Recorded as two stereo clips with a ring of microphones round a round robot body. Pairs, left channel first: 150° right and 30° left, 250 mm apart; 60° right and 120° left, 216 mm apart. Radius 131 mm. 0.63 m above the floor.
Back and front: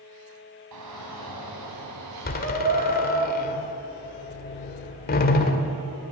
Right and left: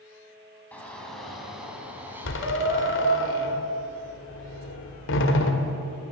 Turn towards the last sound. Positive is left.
turn(degrees=-95)